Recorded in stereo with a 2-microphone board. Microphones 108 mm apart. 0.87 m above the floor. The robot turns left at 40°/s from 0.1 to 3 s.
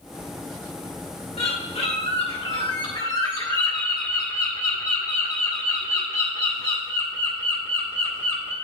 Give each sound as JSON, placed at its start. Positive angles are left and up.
{"t": 1.4, "sound": "a bird", "azimuth_deg": 105, "distance_m": 1.7}